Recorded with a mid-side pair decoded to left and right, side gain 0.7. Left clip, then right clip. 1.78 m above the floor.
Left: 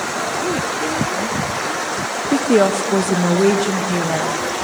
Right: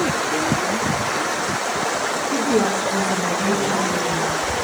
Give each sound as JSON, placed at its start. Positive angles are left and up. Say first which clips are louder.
{"t": 2.3, "sound": "a woman speaking", "louder": "left 7 dB", "azimuth_deg": 55, "distance_m": 1.4}